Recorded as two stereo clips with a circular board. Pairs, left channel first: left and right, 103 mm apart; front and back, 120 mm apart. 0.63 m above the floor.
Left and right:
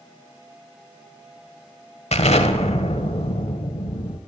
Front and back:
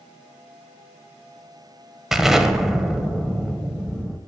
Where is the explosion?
95° left, 1.2 m.